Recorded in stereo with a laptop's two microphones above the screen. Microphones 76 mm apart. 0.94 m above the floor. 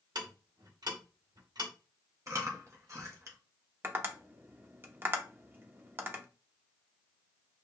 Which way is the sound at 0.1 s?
65° right (ahead or behind).